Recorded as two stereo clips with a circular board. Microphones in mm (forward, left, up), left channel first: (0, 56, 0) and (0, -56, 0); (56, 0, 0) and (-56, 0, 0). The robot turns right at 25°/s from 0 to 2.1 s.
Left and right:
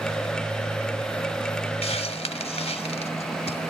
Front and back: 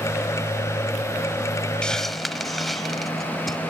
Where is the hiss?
80° left; by 3.6 s 90° left.